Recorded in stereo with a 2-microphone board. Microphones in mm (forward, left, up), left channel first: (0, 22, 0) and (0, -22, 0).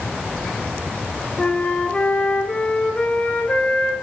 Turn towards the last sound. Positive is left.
turn(degrees=25)  # may be behind; listen again after turning